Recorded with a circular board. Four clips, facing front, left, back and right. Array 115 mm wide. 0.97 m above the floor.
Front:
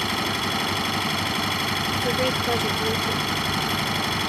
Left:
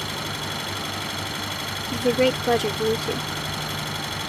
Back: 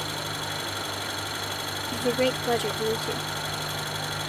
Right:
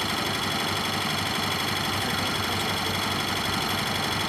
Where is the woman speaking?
95° left.